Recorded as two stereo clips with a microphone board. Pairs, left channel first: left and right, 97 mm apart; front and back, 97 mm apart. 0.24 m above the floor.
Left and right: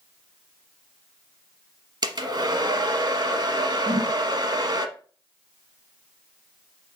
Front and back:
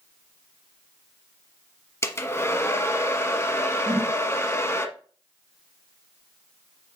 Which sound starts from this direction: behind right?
A whoosh, at 3.9 s.